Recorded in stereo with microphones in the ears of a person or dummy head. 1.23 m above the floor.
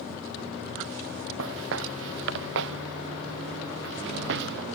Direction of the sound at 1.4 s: 75° right (ahead or behind).